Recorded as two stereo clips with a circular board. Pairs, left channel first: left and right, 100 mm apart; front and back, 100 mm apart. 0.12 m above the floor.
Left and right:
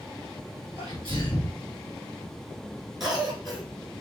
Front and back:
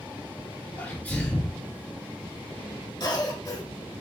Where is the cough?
Straight ahead, 1.4 m.